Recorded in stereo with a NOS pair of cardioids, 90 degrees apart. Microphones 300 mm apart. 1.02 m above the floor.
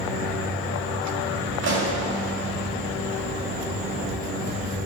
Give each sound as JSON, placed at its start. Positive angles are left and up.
{"t": 1.6, "sound": "a pop", "azimuth_deg": -40, "distance_m": 4.0}